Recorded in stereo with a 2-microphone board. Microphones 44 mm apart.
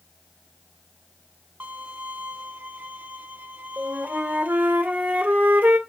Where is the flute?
45° right (ahead or behind), 1.9 m.